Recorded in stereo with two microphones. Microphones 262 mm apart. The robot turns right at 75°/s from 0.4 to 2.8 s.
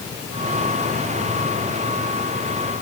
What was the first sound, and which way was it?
Only background noise.